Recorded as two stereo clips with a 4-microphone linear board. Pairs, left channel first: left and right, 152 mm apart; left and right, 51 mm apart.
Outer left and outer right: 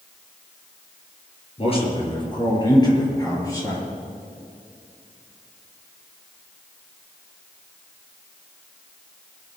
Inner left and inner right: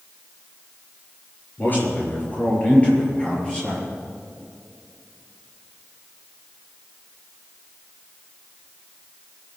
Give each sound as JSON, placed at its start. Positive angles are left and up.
{"t": 1.6, "sound": "a man speaking", "side_deg": 40, "distance_m": 4.5}